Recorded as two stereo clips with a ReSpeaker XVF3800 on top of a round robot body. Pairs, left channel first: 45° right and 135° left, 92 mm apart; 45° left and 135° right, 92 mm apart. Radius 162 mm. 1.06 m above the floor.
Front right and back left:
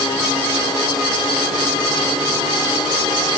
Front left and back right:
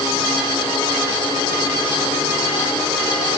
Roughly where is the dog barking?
I don't hear a dog barking.